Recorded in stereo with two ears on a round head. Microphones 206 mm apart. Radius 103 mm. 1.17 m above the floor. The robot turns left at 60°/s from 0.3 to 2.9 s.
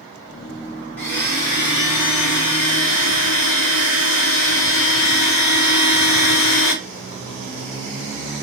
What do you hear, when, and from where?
1.0 s a blender: 170° left, 1.6 m; by 6.8 s 55° left, 1.6 m